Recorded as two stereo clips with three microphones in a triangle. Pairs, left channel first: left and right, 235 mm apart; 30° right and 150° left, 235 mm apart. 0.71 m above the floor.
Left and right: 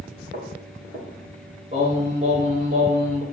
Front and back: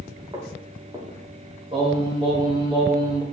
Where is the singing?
145° right, 2.5 m.